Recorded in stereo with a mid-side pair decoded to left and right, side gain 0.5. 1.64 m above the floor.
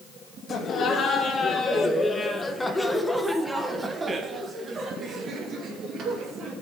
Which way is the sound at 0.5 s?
50° left.